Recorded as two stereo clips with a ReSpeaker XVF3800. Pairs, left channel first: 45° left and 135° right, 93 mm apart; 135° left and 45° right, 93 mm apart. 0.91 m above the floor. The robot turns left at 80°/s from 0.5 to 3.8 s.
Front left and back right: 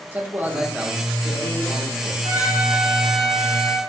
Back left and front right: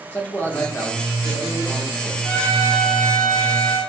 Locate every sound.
0.1 s a man speaking: straight behind, 1.0 m; by 2.1 s 50° left, 1.0 m
2.2 s a trumpet: 170° right, 0.9 m; by 3.8 s 65° left, 0.9 m